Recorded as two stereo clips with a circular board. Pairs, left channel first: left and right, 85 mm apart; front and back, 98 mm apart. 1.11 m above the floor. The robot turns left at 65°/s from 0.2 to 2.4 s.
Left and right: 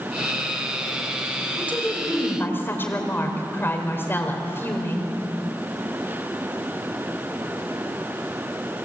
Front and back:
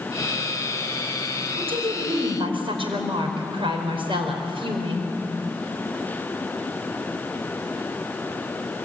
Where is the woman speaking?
150° right, 4.5 m; by 5.1 s 155° left, 4.5 m.